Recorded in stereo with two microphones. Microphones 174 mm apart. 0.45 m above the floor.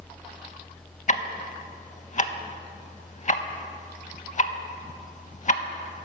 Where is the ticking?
45° left (ahead or behind), 0.5 m.